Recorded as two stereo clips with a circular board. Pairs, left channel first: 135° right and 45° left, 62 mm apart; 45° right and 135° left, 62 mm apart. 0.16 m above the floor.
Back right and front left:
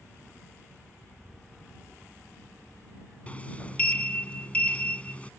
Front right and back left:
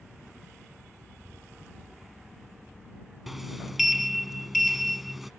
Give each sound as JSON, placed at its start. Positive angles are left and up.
{"t": 0.0, "sound": "a helicopter", "azimuth_deg": -165}
{"t": 3.3, "sound": "a sliding door", "azimuth_deg": -145}